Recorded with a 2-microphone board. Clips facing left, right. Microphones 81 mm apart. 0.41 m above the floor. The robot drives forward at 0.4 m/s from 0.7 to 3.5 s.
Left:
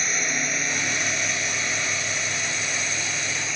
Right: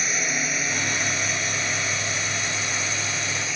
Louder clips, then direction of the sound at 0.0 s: Even; 5° right (ahead or behind).